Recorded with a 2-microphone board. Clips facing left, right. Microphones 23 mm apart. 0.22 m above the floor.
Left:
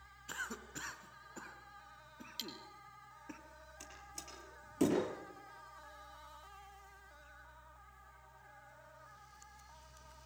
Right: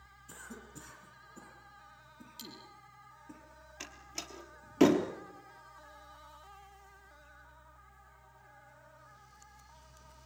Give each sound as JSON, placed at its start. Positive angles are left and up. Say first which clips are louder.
{"t": 0.3, "sound": "a cough", "louder": "left 6 dB", "side_deg": 45, "distance_m": 3.0}
{"t": 2.4, "sound": "cutlery clinking", "louder": "left 4 dB", "side_deg": 35, "distance_m": 3.0}
{"t": 3.8, "sound": "a door slam", "louder": "right 8 dB", "side_deg": -45, "distance_m": 3.5}